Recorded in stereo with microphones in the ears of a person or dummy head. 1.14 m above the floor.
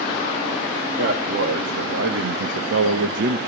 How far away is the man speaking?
About 2 m.